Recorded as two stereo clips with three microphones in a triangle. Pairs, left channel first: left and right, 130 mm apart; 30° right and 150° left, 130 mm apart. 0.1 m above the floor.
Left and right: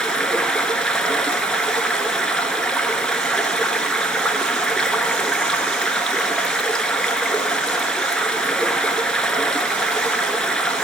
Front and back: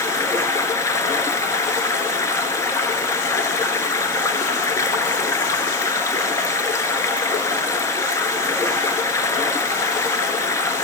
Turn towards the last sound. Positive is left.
turn(degrees=10)